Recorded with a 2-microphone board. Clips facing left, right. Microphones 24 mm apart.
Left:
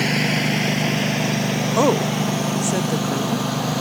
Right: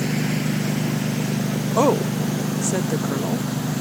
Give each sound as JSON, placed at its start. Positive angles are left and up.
{"t": 0.0, "sound": "a lawn mower", "side_deg": 70}
{"t": 1.8, "sound": "a woman speaking", "side_deg": 5}